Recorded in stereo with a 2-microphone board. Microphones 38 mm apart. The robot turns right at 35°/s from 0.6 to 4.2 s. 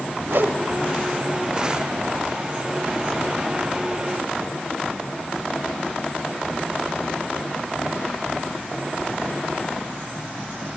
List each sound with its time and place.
0.3 s a whoosh: 65° right (ahead or behind), 1.2 m